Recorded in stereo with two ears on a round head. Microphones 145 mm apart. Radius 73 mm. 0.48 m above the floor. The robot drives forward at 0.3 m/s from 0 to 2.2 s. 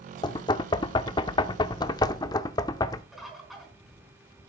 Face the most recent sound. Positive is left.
turn(degrees=0)  # may be behind; listen again after turning